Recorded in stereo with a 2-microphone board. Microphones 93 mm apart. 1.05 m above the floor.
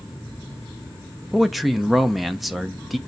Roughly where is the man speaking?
Centre.